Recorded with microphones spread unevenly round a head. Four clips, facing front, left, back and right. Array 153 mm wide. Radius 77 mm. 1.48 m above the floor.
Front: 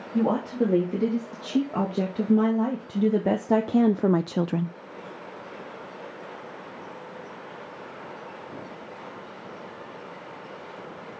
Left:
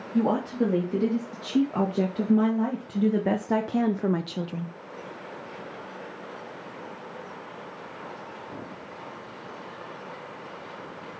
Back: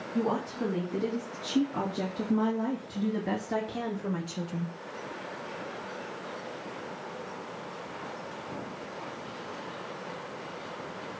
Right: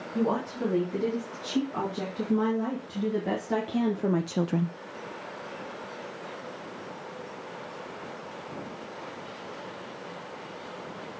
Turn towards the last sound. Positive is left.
turn(degrees=-50)